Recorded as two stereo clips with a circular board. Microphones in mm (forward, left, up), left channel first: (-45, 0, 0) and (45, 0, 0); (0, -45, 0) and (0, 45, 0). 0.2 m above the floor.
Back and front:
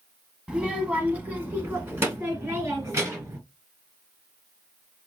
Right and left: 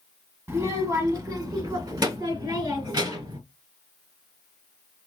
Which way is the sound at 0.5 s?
75° left.